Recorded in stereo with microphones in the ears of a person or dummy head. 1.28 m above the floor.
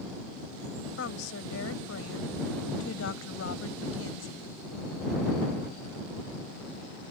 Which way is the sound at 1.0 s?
85° left.